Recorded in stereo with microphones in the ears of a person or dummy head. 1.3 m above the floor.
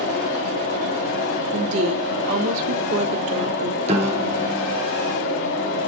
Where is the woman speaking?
75° right (ahead or behind), 2 m.